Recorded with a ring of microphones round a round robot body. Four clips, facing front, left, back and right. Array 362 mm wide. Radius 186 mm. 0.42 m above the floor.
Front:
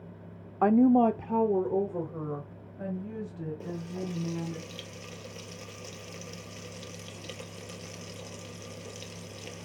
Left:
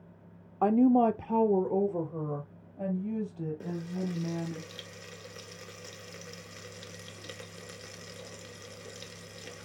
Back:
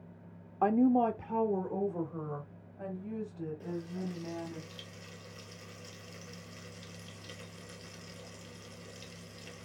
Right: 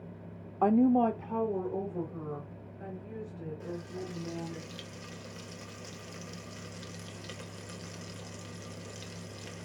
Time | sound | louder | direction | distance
0.6 | a woman speaking | left 1 dB, front 5 dB | 5° left | 0.8 m
3.6 | frying | left 4 dB, front 2 dB | 30° left | 1.5 m